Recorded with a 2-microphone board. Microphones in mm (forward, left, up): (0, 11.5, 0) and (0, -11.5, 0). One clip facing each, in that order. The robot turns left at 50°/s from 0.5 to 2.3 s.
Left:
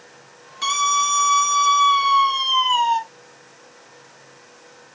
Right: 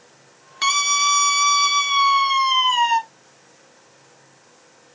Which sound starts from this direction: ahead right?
A scream, at 0.6 s.